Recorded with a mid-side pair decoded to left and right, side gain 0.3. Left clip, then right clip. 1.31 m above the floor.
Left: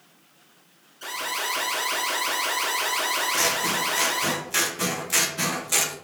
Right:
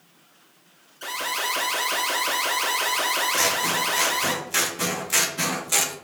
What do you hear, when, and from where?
1.0 s an alarm: 40° right, 1.5 m
3.3 s scissors: 10° right, 0.6 m